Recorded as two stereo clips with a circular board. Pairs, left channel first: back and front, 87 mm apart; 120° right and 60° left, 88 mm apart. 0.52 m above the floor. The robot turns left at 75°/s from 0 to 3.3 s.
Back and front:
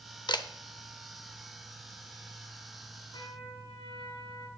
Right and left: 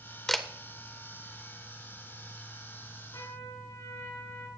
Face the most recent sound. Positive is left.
turn(degrees=-175)